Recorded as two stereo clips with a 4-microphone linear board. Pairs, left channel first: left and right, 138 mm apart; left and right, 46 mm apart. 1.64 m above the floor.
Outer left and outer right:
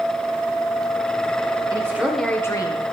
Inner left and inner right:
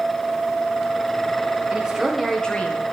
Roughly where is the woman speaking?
Right.